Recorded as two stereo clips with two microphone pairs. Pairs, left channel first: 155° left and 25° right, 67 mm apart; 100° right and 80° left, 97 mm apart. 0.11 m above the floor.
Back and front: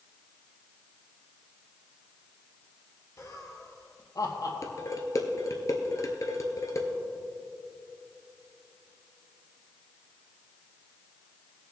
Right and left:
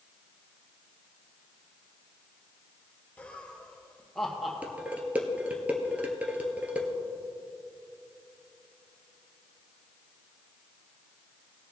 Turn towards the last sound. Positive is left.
turn(degrees=150)